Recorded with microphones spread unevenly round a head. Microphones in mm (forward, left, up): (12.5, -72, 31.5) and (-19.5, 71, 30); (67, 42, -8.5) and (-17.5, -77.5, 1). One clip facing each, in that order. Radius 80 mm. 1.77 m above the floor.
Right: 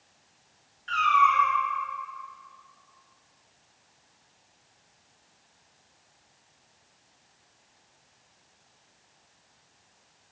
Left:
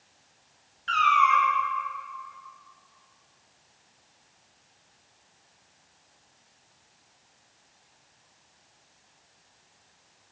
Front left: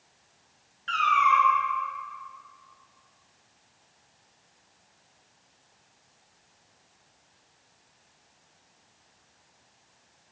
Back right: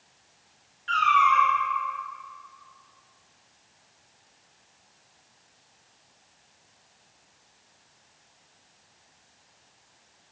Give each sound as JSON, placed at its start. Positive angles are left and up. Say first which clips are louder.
{"t": 0.9, "sound": "a cat meowing", "louder": "left 1 dB, back right 1 dB", "azimuth_deg": 95, "distance_m": 1.4}